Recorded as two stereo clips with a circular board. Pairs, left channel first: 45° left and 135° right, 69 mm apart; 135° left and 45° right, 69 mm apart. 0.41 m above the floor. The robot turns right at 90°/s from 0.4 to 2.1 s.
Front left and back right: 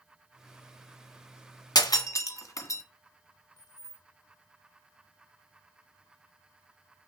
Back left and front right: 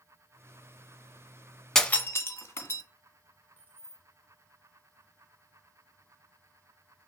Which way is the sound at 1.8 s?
50° left.